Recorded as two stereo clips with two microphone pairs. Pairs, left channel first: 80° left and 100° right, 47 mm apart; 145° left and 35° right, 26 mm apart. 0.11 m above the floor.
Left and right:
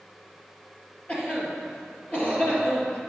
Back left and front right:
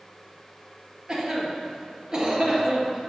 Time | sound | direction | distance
1.1 | a cough | 20° left | 2.0 m